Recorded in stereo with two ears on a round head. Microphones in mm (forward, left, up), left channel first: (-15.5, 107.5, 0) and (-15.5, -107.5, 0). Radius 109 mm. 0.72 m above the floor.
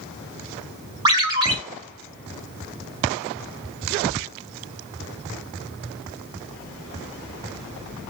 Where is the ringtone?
20° right (ahead or behind), 1.1 m.